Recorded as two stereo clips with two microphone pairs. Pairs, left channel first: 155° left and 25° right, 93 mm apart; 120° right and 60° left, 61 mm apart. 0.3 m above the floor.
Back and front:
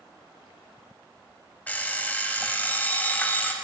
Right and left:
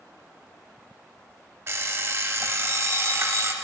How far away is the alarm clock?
About 0.5 m.